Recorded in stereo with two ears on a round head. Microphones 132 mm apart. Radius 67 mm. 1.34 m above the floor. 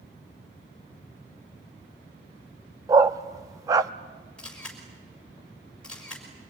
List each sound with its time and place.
2.9 s a dog barking: 25° right (ahead or behind), 0.8 m
4.4 s a camera shutter: 5° left (ahead or behind), 5 m